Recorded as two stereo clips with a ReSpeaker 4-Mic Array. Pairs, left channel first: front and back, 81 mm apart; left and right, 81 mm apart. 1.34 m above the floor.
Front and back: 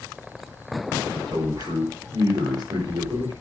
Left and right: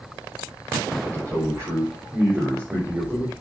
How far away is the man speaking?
About 5.5 m.